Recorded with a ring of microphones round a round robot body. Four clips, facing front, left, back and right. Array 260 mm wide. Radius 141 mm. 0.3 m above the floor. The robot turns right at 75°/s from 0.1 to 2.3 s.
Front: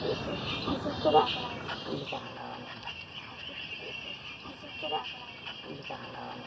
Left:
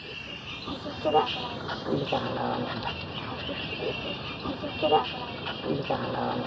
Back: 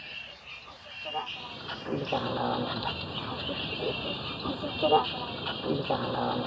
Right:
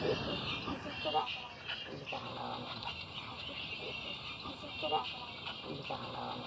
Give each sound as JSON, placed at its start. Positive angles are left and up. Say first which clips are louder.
{"t": 0.0, "sound": "a vehicle", "louder": "right 7 dB, front 17 dB", "azimuth_deg": -35}